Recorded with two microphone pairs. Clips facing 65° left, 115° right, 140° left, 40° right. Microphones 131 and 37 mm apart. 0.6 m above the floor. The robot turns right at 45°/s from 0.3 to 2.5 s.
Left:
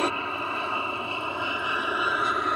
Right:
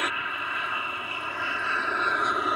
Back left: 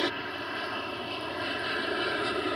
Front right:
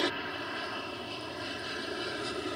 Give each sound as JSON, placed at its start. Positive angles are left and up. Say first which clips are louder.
{"t": 0.0, "sound": "an aircraft", "louder": "left 5 dB, back left 1 dB", "azimuth_deg": 65}